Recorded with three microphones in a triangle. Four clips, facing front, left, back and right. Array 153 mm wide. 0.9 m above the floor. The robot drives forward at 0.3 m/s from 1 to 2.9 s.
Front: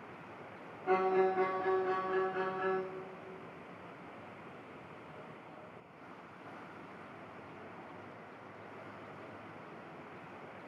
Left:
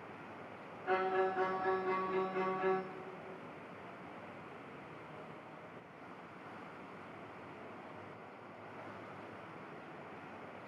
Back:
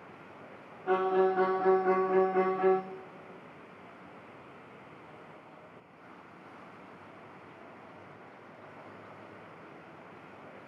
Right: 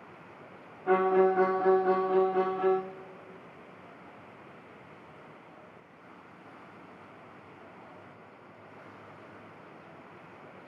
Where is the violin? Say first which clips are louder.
Right 10 dB, back 3 dB; 100° right, 0.6 m; by 2.8 s 140° right, 0.9 m.